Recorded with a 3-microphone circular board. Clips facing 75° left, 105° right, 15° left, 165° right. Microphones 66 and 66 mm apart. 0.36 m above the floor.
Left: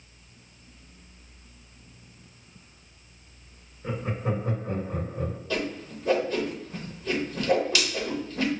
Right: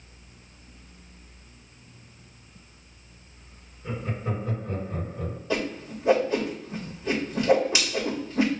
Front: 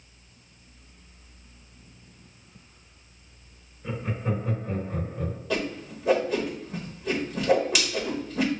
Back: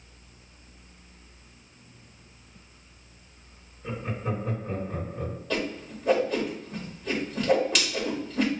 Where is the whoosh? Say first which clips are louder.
Right 4 dB, front 1 dB; 65° right, 1.0 m.